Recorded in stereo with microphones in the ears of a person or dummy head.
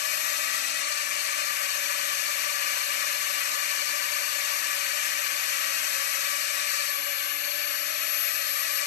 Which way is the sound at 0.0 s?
45° left (ahead or behind).